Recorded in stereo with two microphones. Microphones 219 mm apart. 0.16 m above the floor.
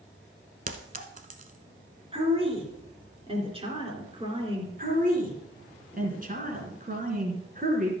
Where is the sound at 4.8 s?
35° right (ahead or behind), 2.5 m.